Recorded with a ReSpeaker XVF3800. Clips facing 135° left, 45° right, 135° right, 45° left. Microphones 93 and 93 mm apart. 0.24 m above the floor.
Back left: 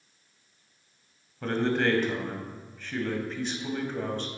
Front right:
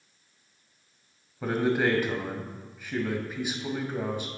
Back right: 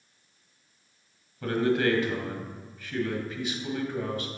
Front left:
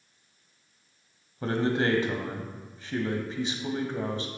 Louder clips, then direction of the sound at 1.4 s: Front right 1 dB, back right 1 dB; 25° left.